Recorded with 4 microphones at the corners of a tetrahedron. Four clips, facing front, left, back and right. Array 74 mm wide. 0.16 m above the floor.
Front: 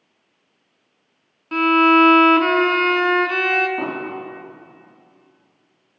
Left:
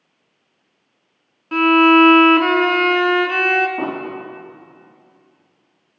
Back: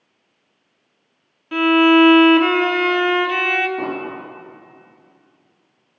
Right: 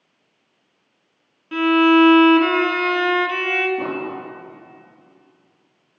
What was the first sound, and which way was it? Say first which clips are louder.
A violin: left 3 dB, back 1 dB; 55° left.